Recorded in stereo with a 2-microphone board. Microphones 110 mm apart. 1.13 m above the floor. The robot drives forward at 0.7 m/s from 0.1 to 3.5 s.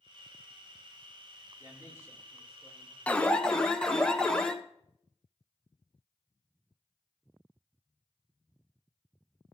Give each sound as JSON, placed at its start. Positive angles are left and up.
{"t": 1.6, "sound": "a man speaking", "side_deg": -25, "distance_m": 3.0}
{"t": 3.1, "sound": "an alarm", "side_deg": 10, "distance_m": 0.5}